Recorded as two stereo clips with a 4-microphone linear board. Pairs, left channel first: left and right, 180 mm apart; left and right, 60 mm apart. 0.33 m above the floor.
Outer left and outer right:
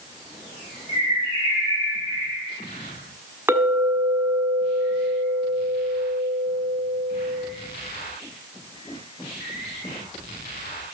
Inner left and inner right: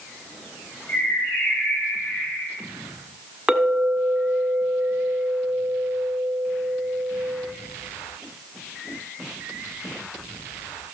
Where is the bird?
35° left (ahead or behind), 6 m.